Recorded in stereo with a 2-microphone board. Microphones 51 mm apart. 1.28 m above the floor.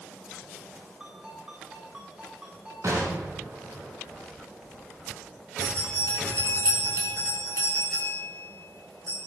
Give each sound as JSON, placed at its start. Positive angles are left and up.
{"t": 1.0, "sound": "a ringtone", "side_deg": -20, "distance_m": 8.5}
{"t": 2.8, "sound": "an explosion", "side_deg": -80, "distance_m": 6.5}
{"t": 5.6, "sound": "a bell", "side_deg": -75, "distance_m": 8.0}